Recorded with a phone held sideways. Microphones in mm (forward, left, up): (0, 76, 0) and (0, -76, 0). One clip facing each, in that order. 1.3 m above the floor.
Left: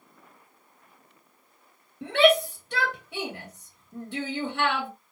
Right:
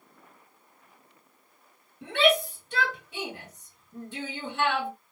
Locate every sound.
2.0 s a shout: 80° left, 1.8 m